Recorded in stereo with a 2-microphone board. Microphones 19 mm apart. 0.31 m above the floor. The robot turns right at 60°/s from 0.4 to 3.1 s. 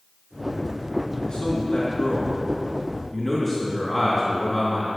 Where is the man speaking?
50° left, 3 m; by 4.9 s 160° left, 3 m.